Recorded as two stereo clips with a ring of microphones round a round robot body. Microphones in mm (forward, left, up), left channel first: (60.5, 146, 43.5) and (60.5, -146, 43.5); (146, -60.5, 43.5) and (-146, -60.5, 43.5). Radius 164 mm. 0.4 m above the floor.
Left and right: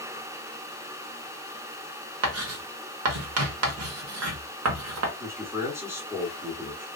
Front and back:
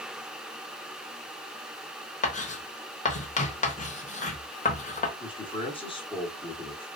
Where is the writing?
65° right, 0.9 m.